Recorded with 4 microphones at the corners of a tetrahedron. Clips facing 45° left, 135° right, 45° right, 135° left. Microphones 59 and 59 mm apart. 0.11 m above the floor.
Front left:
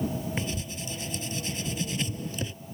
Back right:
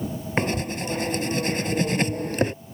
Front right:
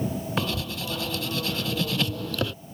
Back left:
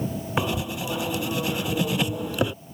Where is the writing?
160° right.